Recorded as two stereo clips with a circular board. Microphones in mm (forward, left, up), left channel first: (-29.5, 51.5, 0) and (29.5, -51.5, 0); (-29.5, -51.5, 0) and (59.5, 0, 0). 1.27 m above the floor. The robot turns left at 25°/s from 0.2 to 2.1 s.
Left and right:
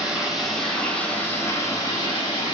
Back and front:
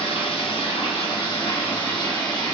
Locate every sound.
0.0 s running water: 145° right, 2.5 m; by 2.5 s 170° left, 2.5 m